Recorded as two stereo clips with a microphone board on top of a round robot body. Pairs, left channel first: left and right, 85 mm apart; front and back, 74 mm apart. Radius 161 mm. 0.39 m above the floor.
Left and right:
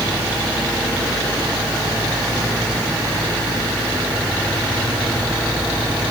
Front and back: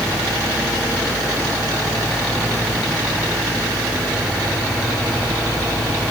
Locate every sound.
Only background noise.